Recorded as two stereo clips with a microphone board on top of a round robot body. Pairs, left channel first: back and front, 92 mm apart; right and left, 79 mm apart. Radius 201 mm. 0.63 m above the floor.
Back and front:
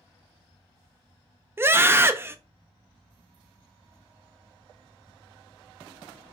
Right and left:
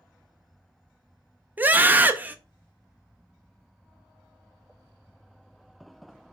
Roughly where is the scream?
Ahead left.